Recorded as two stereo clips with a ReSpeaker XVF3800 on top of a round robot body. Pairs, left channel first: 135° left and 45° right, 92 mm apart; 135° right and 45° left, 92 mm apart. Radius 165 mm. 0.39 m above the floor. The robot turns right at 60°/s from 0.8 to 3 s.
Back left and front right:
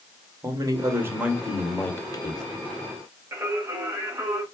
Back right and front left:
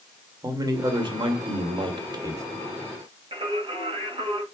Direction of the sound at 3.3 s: 15° left.